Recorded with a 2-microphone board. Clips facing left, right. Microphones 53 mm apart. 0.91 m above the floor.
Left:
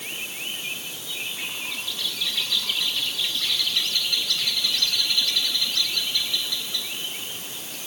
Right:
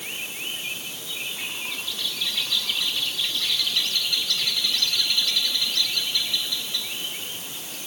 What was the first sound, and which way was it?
Only background noise.